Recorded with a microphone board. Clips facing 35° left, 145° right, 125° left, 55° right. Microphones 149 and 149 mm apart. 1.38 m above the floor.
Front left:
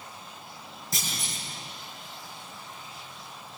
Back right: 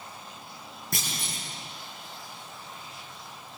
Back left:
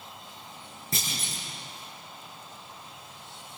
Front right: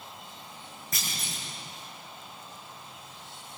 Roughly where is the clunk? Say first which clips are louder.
Back right 1 dB, back left 3 dB; behind.